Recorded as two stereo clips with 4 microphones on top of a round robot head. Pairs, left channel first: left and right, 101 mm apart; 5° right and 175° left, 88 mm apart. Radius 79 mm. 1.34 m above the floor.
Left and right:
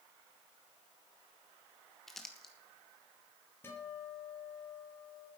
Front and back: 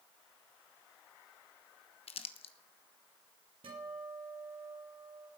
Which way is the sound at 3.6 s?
155° left.